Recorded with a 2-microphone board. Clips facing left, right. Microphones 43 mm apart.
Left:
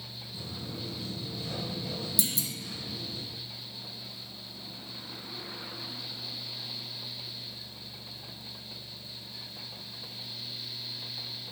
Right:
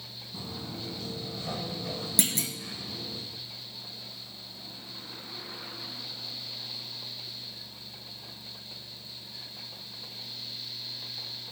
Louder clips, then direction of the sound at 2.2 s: Right 6 dB; 55° right (ahead or behind).